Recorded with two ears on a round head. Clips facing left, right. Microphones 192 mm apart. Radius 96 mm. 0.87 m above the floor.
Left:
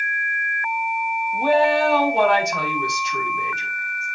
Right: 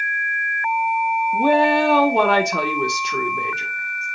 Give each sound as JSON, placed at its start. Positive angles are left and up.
{"t": 1.3, "sound": "a woman speaking", "side_deg": -75, "distance_m": 1.4}